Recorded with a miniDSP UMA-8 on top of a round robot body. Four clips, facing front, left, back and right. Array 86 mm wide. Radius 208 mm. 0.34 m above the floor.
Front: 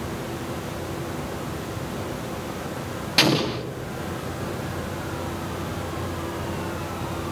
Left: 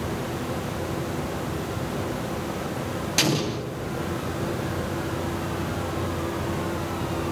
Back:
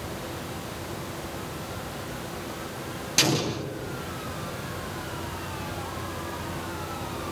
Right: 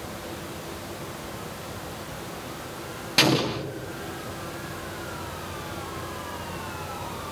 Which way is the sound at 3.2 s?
30° right.